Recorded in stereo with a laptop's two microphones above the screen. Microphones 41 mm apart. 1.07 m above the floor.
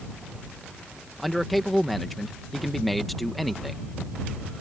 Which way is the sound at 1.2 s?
Centre (ahead or behind).